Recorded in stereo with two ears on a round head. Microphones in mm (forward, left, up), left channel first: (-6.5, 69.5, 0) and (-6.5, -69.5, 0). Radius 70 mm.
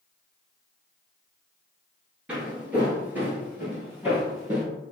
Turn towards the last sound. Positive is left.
turn(degrees=-15)  # may be behind; listen again after turning